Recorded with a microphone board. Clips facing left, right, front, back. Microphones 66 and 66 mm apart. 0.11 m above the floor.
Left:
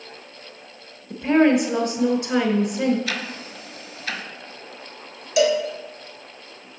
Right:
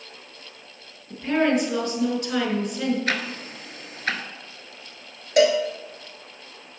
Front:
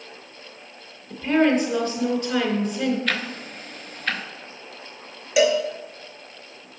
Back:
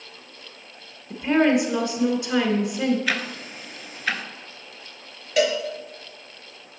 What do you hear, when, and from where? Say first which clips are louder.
1.1 s a woman speaking: left 5 dB, even; 125° left, 1.1 m
3.1 s ticking: right 2 dB, even; 100° right, 0.5 m
5.4 s a cowbell: right 1 dB, front 3 dB; 80° right, 0.8 m